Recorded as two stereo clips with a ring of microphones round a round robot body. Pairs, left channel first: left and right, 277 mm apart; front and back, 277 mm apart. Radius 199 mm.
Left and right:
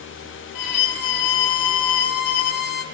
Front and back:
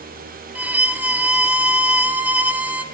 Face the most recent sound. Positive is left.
turn(degrees=95)